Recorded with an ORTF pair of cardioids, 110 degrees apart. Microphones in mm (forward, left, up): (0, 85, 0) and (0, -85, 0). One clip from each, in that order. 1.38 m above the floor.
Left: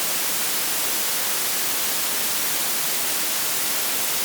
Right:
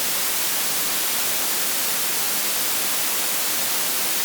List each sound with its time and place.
Only background noise.